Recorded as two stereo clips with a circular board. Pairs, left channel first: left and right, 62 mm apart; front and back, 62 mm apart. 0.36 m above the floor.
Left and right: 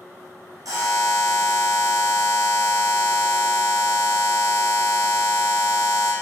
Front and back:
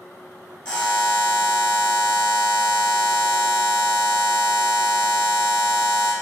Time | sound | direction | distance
0.7 | a buzzer | 75° right | 1.9 m